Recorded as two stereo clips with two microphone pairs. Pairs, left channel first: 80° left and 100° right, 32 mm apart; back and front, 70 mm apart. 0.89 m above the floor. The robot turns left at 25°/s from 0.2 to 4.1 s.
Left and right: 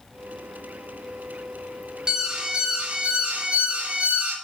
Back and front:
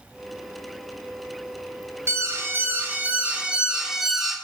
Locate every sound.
2.1 s an alarm: 35° right, 1.7 m; by 4.3 s 85° right, 1.7 m